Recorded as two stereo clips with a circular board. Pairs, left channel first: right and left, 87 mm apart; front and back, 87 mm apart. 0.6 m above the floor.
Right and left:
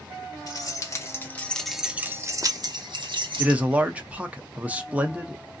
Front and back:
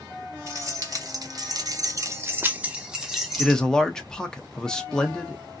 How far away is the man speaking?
About 0.6 m.